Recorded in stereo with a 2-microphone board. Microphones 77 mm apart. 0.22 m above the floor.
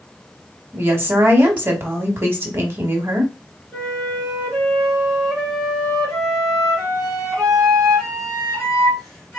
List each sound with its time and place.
0.7 s a woman speaking: 30° right (ahead or behind), 1.3 m
3.7 s a flute: 5° left (ahead or behind), 2.5 m